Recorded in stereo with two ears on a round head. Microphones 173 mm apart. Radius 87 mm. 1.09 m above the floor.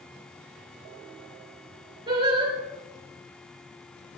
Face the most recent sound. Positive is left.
turn(degrees=-25)  # may be behind; listen again after turning